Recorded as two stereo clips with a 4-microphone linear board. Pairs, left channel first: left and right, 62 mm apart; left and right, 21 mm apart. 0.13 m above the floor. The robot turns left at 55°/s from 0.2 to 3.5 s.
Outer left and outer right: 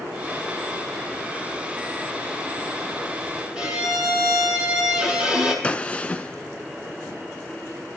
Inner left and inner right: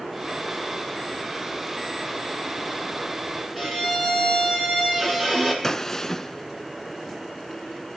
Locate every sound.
3.5 s a violin: 15° right (ahead or behind), 3 m
5.6 s a gunshot: 20° left (ahead or behind), 0.6 m